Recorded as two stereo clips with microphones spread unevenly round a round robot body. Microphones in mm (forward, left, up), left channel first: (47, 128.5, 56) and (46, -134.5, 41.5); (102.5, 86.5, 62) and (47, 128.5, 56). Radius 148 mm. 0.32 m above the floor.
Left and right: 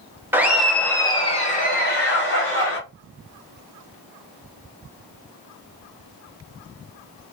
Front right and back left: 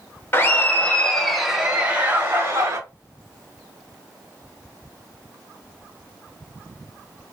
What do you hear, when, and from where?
0.3 s laughter: 25° right, 0.9 m; by 2.8 s 105° left, 1.2 m